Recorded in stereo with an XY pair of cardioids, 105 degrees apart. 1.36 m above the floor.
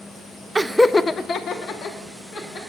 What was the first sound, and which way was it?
Laughter, 20° right.